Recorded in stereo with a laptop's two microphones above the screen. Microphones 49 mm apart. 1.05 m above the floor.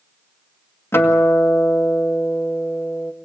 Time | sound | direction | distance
0.9 | a guitar | 60° left (ahead or behind) | 2.0 m